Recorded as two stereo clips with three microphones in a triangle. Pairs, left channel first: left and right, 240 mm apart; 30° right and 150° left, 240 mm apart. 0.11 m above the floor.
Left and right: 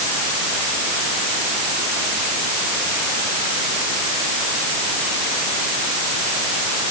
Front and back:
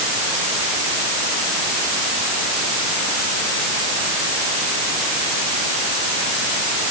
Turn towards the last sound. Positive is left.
No sound to turn to.